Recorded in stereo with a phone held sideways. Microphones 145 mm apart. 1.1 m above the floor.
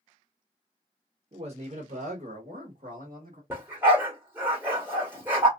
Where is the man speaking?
45° right (ahead or behind), 0.9 m; by 3.4 s 85° right, 1.7 m.